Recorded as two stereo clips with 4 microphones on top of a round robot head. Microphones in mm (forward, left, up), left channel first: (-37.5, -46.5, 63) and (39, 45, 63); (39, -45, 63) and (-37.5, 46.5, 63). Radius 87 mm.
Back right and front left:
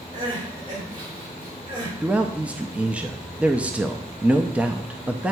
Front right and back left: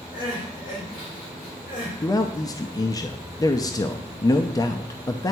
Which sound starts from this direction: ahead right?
A man speaking, at 2.0 s.